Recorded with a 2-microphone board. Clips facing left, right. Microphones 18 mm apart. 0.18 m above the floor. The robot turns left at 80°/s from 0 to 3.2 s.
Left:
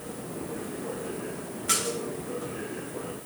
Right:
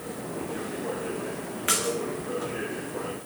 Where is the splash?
80° right, 2.5 m; by 2.0 s 75° right (ahead or behind), 2.5 m.